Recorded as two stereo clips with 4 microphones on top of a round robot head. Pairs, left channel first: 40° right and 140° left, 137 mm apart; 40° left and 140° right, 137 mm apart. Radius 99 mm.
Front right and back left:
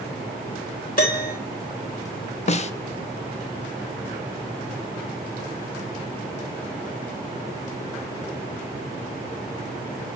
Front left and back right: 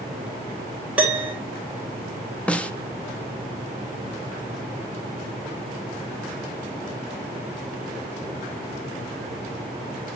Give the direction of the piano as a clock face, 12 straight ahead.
2 o'clock.